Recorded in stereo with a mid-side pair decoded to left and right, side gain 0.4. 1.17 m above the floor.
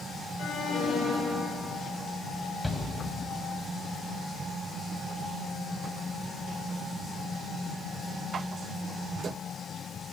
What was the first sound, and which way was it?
An alarm, 60° left.